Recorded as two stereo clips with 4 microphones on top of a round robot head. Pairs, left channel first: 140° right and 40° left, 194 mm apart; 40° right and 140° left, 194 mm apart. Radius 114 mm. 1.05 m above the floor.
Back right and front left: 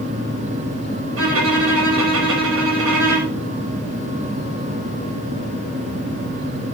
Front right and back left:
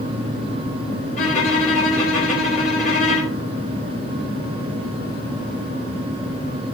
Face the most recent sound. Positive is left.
turn(degrees=15)